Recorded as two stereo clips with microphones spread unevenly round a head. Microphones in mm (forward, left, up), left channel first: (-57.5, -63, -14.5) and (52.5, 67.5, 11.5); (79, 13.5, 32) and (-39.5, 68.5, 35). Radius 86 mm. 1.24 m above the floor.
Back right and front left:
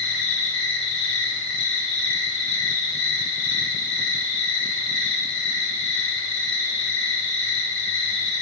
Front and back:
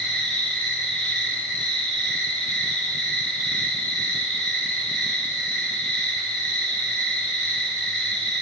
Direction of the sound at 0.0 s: 115° right.